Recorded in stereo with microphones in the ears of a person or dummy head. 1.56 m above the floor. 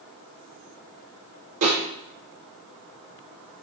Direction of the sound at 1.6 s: 55° right (ahead or behind).